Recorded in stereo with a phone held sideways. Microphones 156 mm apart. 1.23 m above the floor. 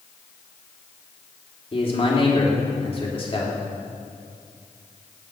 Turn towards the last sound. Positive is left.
turn(degrees=40)  # may be behind; listen again after turning